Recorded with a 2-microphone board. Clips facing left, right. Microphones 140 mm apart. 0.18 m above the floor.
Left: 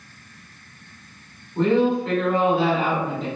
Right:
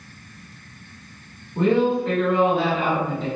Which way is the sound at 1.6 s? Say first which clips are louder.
Even; 10° right (ahead or behind).